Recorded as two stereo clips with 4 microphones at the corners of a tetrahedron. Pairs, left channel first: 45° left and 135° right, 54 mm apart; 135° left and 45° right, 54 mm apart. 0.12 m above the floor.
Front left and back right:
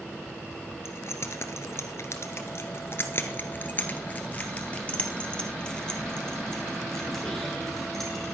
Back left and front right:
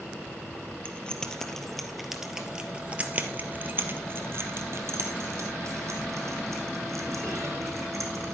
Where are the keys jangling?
70° left, 1.5 m; by 8.3 s 40° right, 3.5 m.